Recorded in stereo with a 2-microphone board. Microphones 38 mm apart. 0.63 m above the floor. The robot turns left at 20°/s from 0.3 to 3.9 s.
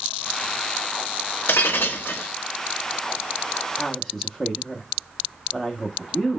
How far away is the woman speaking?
About 0.8 m.